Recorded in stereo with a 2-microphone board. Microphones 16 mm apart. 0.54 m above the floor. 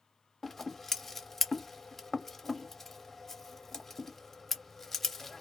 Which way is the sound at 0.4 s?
15° left (ahead or behind).